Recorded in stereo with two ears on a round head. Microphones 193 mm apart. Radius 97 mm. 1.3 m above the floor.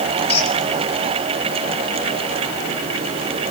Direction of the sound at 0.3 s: 30° left (ahead or behind).